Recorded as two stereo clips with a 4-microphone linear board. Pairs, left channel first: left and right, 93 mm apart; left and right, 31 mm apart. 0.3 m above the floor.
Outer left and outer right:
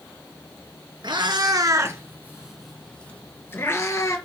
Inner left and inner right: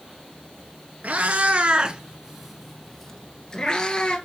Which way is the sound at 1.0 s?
60° right (ahead or behind).